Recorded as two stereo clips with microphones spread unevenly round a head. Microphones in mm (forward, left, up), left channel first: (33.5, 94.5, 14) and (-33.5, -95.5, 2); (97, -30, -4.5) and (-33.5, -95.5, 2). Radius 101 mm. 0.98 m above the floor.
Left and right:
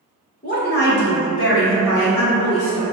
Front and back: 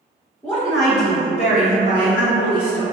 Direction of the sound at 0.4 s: 100° left.